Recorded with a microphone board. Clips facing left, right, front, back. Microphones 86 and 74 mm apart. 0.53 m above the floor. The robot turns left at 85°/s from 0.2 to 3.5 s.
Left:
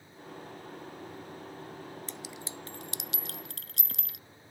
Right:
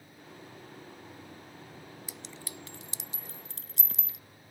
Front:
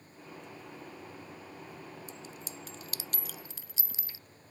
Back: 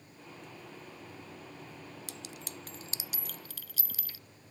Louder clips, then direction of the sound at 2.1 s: Left 3 dB, even; 170° right.